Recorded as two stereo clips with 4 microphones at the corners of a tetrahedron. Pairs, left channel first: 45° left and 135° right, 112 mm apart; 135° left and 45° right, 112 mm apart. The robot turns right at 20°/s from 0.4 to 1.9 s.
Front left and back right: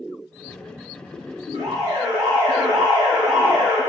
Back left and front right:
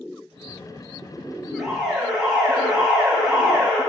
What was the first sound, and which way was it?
An alarm, 135° right.